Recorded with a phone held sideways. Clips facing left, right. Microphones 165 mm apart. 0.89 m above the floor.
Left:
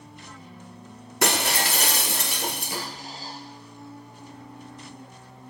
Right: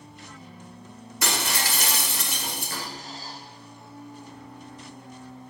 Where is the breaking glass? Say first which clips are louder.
Left 5 dB; 65° left (ahead or behind), 1.3 m.